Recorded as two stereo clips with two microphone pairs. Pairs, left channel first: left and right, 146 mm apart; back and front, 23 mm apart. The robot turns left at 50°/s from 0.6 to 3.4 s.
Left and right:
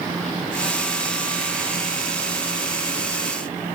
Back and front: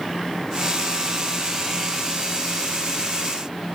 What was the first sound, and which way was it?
Only background noise.